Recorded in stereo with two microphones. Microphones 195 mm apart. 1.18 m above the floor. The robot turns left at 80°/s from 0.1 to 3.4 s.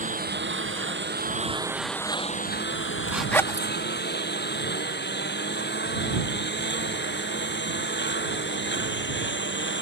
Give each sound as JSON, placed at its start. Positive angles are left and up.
{"t": 0.0, "sound": "a lawn mower", "side_deg": -40}
{"t": 3.1, "sound": "a zipper", "side_deg": -10}